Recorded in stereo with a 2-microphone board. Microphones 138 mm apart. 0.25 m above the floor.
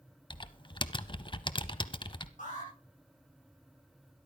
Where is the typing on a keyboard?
35° left (ahead or behind), 0.6 m.